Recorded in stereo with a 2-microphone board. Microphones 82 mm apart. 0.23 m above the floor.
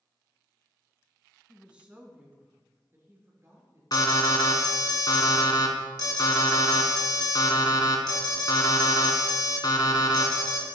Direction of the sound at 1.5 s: 10° right (ahead or behind).